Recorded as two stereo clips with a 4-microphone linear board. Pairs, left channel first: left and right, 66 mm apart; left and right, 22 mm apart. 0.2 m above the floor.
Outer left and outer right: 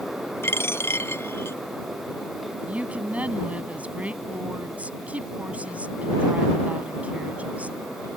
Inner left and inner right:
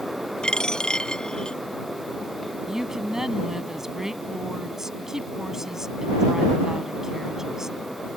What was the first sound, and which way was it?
A dropped coin, 40° left (ahead or behind).